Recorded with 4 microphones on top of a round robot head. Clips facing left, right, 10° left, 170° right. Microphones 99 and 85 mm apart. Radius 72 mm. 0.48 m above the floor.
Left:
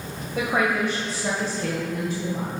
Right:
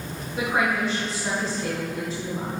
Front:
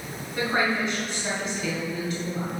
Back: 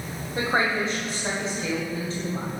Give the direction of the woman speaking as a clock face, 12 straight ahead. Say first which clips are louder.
Left 1 dB, back 1 dB; 8 o'clock.